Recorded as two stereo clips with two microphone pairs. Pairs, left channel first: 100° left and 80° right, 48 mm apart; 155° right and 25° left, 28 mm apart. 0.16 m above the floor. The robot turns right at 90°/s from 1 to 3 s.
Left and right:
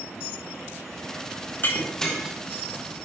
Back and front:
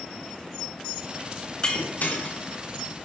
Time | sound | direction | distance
1.6 | breaking glass | 145° left | 4.5 m